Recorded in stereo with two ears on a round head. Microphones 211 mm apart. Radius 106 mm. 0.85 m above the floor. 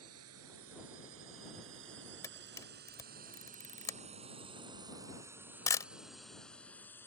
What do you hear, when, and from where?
0.0 s a drone: 65° right (ahead or behind); by 7.1 s 10° left (ahead or behind)
2.2 s a camera shutter: 15° left (ahead or behind)